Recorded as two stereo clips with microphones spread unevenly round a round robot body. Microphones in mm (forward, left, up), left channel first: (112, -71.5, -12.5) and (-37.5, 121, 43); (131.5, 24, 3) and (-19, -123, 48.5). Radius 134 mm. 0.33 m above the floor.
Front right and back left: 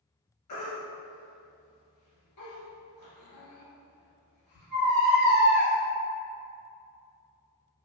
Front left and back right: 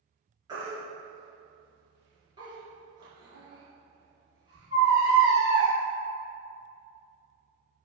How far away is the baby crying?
About 1.6 m.